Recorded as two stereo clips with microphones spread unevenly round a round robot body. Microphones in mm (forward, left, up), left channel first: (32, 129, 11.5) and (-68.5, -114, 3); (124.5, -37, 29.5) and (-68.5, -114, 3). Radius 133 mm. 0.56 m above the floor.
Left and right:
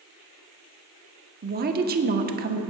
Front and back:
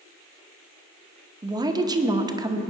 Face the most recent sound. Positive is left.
turn(degrees=-115)